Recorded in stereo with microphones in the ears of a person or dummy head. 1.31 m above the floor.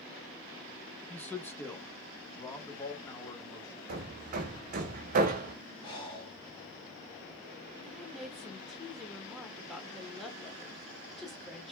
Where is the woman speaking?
Centre (ahead or behind), 1.2 m.